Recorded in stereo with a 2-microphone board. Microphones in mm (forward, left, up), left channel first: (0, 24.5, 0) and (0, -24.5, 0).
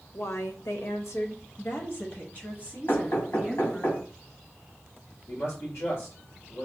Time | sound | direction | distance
0.1 | a woman speaking | 65° left (ahead or behind) | 0.8 m
2.9 | knocking | 75° left (ahead or behind) | 3 m
5.3 | a man speaking | 65° left (ahead or behind) | 1.6 m